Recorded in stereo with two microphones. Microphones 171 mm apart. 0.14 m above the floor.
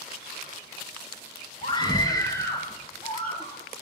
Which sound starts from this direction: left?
A scream, at 1.6 s.